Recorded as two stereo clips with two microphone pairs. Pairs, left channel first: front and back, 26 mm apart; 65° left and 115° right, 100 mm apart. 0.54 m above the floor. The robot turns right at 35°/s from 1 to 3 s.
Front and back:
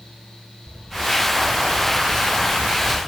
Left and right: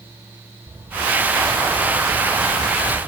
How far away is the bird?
About 5.5 m.